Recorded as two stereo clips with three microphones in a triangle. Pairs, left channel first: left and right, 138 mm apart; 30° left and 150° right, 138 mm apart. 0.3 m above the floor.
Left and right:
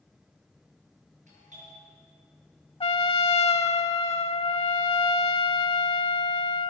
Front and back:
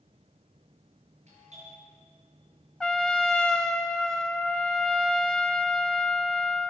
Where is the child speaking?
No child speaking in this recording.